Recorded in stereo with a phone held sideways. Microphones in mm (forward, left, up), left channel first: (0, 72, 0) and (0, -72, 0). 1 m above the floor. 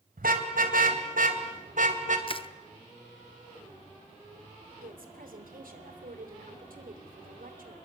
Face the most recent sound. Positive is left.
turn(degrees=-80)